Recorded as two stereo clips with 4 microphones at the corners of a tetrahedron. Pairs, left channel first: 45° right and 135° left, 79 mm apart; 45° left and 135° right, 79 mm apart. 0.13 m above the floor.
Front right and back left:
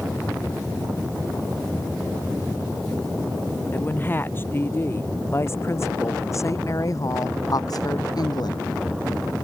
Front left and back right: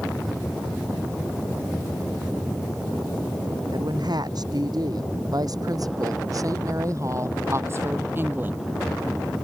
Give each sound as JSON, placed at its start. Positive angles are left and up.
{"t": 3.7, "sound": "a woman speaking", "azimuth_deg": -110}